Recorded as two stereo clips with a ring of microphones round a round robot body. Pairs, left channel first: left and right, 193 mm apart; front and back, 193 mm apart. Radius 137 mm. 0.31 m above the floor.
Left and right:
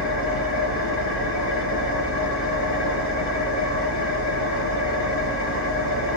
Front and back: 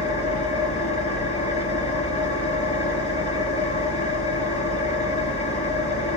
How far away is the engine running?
About 3 m.